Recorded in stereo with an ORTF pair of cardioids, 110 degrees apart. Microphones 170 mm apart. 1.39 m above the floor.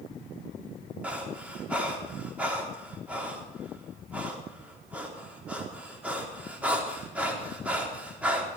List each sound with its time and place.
1.0 s breathing: 10° right, 4 m